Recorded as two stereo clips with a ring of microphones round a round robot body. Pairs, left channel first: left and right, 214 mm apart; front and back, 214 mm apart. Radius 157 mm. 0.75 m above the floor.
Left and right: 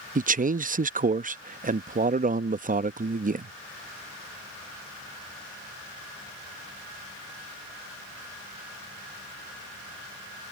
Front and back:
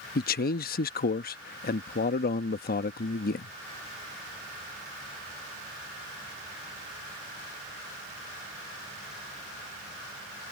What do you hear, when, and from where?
0.1 s a man speaking: 40° right